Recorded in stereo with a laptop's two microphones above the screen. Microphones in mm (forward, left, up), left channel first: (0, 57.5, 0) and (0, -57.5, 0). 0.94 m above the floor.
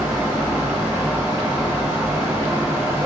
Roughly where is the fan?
Centre.